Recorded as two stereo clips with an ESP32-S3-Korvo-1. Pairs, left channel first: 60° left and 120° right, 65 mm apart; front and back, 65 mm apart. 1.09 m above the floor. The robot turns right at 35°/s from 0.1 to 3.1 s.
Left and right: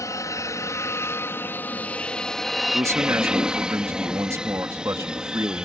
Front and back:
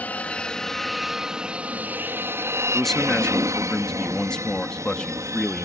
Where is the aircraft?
60° left; by 5.7 s 165° left.